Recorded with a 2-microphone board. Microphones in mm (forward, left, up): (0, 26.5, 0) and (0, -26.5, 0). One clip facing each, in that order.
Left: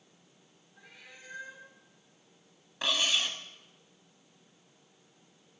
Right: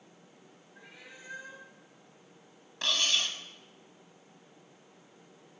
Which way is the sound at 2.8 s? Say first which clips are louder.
Left 1 dB; 10° left (ahead or behind).